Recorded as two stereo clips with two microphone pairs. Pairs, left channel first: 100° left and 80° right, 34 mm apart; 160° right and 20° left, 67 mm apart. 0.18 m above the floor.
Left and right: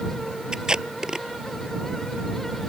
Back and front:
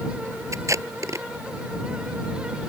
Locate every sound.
0.5 s tape being pulled: 15° right